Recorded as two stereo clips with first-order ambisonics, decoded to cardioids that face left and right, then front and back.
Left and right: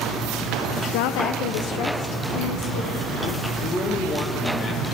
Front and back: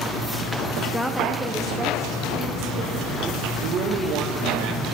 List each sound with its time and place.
0.9 s a woman speaking: 85° left, 0.5 m; by 3.1 s 105° left, 1.7 m
3.6 s a man speaking: 150° left, 1.0 m